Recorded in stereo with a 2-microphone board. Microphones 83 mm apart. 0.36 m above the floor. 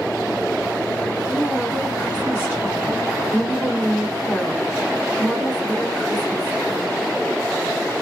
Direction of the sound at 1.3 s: 20° left (ahead or behind).